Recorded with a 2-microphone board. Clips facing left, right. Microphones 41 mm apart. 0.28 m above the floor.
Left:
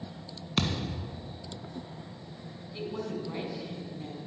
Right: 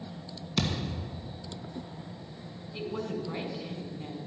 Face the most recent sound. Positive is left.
turn(degrees=-10)  # may be behind; listen again after turning